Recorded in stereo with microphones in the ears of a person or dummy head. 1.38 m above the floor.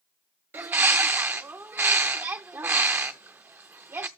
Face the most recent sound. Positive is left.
turn(degrees=-10)  # may be behind; listen again after turning